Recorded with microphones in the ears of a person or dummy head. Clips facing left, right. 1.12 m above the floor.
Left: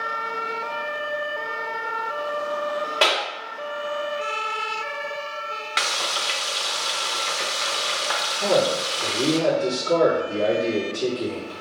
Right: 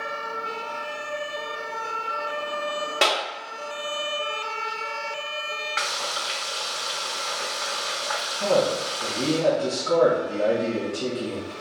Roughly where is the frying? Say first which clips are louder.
Left 2 dB; left.